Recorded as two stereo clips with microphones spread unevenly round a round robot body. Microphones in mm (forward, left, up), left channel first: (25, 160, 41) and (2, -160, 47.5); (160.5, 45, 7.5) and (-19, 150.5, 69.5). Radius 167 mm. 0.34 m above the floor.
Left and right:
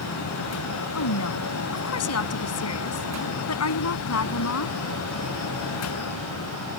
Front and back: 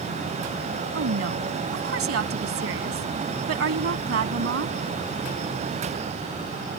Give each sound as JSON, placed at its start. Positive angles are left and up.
{"t": 0.9, "sound": "a woman speaking", "azimuth_deg": 130}